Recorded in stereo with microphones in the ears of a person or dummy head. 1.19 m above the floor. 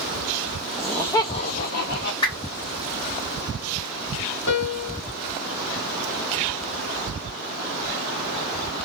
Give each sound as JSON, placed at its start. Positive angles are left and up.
{"t": 0.8, "sound": "laughter", "side_deg": 0, "distance_m": 0.6}
{"t": 2.2, "sound": "a whoosh", "side_deg": 25, "distance_m": 2.0}
{"t": 4.5, "sound": "a piano", "side_deg": 55, "distance_m": 1.0}